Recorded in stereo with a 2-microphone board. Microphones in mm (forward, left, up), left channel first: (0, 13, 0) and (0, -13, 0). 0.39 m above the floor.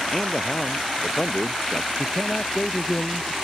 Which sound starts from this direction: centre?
A man speaking, at 0.1 s.